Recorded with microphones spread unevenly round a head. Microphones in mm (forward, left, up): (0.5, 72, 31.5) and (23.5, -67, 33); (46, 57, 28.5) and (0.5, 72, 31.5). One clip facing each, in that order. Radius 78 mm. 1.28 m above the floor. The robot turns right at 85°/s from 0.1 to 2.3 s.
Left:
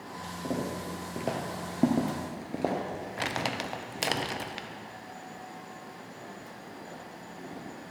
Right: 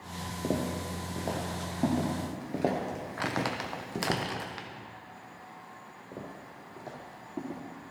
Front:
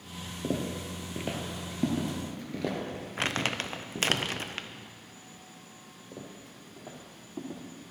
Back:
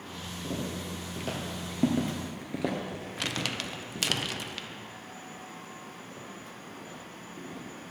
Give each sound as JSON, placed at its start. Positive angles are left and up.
{"t": 0.4, "sound": "footsteps", "azimuth_deg": -30, "distance_m": 1.9}
{"t": 3.2, "sound": "crumpling", "azimuth_deg": 35, "distance_m": 0.7}
{"t": 6.1, "sound": "footsteps", "azimuth_deg": -70, "distance_m": 2.5}